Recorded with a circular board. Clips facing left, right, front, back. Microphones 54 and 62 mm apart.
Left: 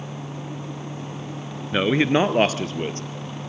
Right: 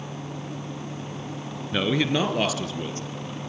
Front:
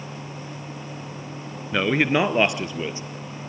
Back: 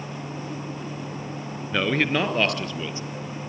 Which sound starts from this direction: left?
A man speaking, at 1.7 s.